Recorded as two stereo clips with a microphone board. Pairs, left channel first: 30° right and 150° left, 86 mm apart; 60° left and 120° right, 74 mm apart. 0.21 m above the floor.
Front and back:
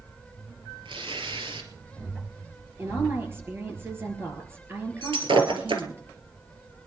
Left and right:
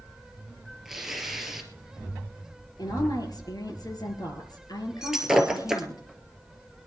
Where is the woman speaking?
85° left, 4 m.